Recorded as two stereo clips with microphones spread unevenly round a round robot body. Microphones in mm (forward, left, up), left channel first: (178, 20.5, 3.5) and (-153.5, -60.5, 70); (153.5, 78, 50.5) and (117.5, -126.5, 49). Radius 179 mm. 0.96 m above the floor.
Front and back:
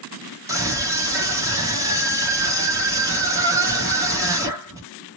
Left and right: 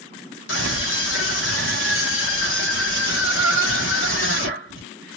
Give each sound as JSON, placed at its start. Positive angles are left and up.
{"t": 0.5, "sound": "a scream", "azimuth_deg": 110, "distance_m": 1.7}